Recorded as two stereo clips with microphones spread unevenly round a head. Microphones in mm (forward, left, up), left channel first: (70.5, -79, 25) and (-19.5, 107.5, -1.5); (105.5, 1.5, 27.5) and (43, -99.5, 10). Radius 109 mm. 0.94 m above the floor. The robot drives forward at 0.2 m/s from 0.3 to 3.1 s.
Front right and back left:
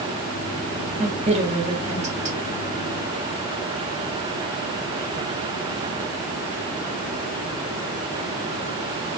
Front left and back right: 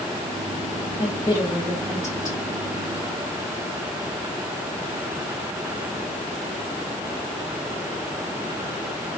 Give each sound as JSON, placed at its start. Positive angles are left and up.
{"t": 1.0, "sound": "a woman speaking", "azimuth_deg": 100, "distance_m": 0.9}